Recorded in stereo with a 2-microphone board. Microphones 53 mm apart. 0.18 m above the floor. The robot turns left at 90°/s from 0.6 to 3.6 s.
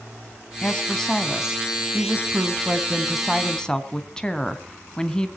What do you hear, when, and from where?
0.6 s a woman speaking: 25° left (ahead or behind), 1.4 m; by 5.3 s 15° left (ahead or behind), 1.4 m